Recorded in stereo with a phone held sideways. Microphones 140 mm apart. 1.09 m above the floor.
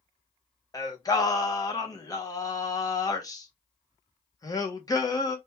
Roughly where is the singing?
Left.